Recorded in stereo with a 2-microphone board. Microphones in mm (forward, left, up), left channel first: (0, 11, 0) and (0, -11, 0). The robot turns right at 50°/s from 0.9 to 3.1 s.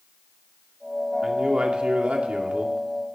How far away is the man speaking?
About 2 m.